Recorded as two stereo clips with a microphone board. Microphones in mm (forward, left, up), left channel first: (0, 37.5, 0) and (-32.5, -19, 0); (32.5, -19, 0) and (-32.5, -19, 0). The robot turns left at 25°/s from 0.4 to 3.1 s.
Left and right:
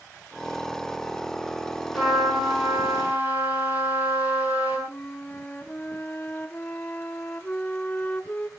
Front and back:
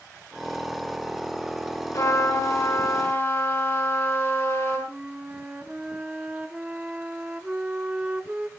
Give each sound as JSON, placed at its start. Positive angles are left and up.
{"t": 1.9, "sound": "a trumpet", "azimuth_deg": -30, "distance_m": 6.5}
{"t": 4.9, "sound": "a flute", "azimuth_deg": 115, "distance_m": 0.9}